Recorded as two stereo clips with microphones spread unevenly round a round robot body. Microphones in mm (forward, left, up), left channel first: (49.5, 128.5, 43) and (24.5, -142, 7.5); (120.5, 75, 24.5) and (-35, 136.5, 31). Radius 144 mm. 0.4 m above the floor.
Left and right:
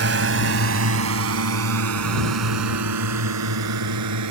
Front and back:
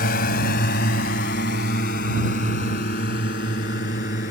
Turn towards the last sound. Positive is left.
turn(degrees=-80)